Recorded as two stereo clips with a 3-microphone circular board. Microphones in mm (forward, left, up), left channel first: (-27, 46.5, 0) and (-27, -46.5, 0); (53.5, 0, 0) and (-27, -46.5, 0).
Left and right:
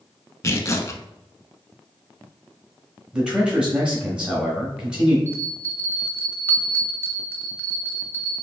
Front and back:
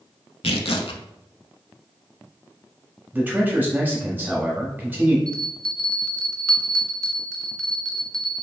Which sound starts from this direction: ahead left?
Tearing paper, at 0.4 s.